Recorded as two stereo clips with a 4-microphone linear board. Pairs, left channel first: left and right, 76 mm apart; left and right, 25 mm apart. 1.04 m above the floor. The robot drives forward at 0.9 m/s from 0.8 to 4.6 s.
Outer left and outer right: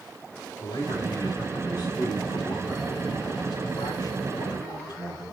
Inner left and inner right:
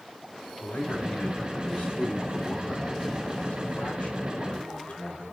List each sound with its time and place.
0.6 s a man speaking: 85° left, 8 m; by 5.2 s 65° left (ahead or behind), 9 m